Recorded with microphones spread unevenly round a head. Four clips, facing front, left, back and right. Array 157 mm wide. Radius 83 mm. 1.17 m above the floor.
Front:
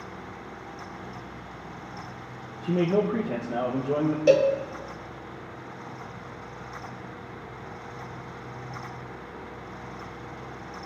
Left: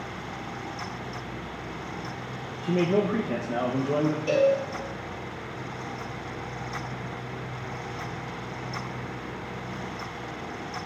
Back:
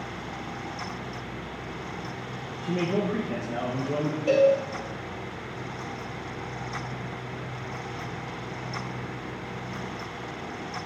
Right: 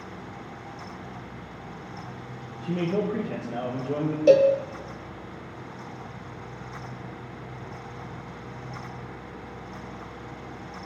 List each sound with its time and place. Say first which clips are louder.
2.6 s a man speaking: left 3 dB, front 3 dB; 60° left, 1.1 m
4.3 s a cowbell: right 6 dB, even; 50° right, 0.8 m